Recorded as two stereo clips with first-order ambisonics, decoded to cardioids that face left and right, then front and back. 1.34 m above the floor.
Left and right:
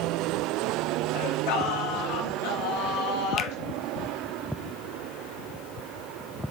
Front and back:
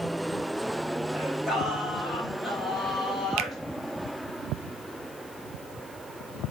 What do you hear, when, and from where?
1.1 s singing: 90° left, 1.9 m
3.4 s a finger snap: 150° left, 0.6 m